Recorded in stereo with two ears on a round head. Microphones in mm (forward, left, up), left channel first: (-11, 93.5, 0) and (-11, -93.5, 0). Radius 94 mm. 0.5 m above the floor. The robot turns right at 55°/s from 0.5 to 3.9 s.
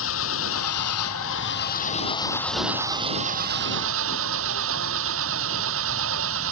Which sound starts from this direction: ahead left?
An engine running, at 0.0 s.